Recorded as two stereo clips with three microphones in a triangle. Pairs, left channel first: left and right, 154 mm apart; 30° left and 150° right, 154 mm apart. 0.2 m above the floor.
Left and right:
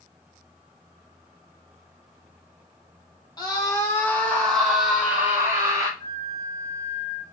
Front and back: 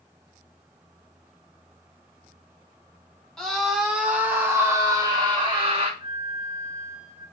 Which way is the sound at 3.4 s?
110° left.